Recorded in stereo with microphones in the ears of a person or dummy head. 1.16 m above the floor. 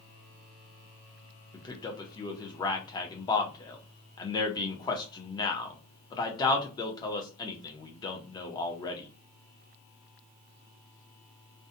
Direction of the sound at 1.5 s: 20° left (ahead or behind).